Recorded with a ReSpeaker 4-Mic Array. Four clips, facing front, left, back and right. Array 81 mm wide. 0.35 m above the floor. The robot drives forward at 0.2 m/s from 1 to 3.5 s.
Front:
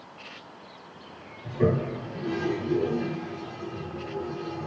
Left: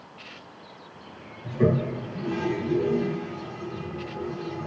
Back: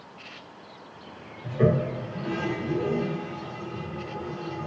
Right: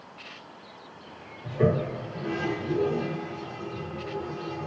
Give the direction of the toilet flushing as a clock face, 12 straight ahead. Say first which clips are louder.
Left 1 dB, back 2 dB; 5 o'clock.